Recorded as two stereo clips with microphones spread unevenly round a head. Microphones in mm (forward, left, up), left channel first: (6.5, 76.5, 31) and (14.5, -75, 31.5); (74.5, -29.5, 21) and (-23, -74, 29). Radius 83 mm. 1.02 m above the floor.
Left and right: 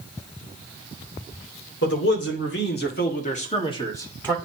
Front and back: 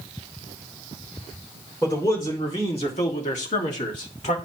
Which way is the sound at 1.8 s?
95° left.